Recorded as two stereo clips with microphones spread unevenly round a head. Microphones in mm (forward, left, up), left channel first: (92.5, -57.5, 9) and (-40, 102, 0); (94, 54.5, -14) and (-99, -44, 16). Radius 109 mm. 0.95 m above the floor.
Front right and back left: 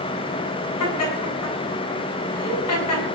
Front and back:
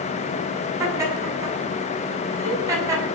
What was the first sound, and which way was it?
Laughter, 75° right.